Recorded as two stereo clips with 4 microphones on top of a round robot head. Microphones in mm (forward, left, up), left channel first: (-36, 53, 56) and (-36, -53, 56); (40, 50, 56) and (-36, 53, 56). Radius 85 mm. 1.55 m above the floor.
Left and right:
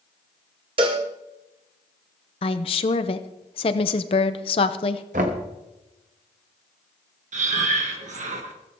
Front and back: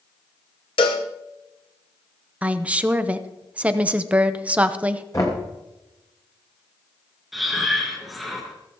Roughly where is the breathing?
Right.